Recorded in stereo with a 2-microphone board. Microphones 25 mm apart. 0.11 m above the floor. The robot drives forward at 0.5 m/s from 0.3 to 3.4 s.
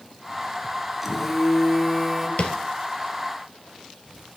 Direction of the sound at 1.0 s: 10° right (ahead or behind).